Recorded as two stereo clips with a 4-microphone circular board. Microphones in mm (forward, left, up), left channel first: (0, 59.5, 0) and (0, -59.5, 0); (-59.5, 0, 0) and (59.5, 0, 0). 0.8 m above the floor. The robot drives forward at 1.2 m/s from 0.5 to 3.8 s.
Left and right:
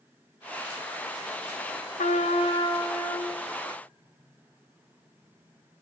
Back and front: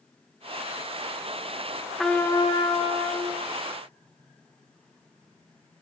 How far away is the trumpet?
About 0.7 m.